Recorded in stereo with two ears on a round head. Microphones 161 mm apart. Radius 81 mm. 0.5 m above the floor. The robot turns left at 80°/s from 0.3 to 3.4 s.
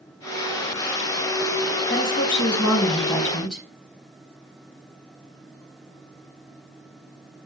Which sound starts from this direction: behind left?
A woman speaking, at 1.9 s.